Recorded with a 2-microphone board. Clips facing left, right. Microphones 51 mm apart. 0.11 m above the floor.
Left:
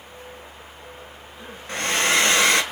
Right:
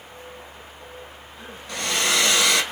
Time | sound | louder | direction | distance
1.7 | a hair dryer | left 3 dB | 35° left (ahead or behind) | 1.3 m